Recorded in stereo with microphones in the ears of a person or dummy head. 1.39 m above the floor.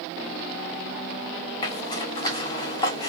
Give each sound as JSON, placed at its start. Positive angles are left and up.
{"t": 1.6, "sound": "a zipper", "side_deg": 25, "distance_m": 1.7}